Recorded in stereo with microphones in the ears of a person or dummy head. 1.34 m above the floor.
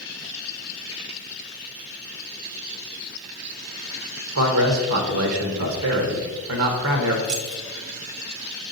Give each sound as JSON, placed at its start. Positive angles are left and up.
{"t": 4.3, "sound": "a man speaking", "side_deg": -80, "distance_m": 1.2}
{"t": 7.2, "sound": "keys jangling", "side_deg": -60, "distance_m": 1.0}